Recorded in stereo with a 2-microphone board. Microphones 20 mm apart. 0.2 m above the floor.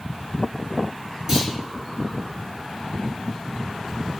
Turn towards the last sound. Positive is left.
turn(degrees=-20)  # may be behind; listen again after turning